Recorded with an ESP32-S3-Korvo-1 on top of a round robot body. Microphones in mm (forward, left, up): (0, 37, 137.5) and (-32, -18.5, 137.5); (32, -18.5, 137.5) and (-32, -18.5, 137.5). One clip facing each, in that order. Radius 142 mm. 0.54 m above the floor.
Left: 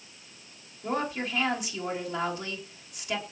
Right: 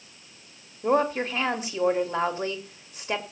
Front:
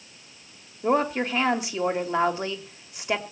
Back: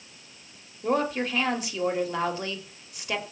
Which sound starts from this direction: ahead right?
A woman speaking, at 0.8 s.